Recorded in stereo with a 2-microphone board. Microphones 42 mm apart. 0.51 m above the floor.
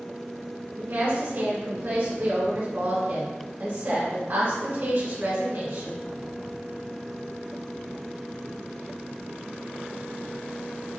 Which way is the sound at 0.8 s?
55° right (ahead or behind).